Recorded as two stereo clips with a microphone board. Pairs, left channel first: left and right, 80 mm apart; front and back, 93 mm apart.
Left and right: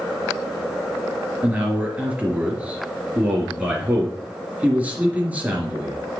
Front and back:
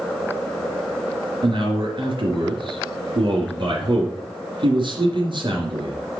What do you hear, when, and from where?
1.4 s a man speaking: 160° right, 3 m